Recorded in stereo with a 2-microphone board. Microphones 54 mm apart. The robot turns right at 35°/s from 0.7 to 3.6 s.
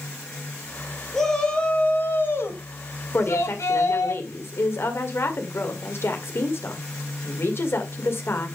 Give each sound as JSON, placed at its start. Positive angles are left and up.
{"t": 1.1, "sound": "a shout", "azimuth_deg": 5, "distance_m": 3.0}
{"t": 3.1, "sound": "a woman speaking", "side_deg": 45, "distance_m": 2.0}